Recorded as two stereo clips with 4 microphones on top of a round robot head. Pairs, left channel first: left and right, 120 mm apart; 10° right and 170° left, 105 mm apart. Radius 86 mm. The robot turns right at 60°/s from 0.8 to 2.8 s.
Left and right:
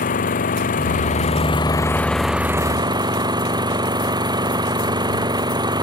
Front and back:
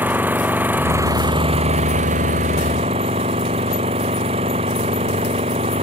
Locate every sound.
0.0 s an engine running: 95° left; by 5.8 s 145° right